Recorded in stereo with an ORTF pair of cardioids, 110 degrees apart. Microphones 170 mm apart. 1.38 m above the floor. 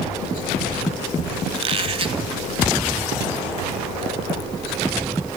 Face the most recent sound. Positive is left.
turn(degrees=-35)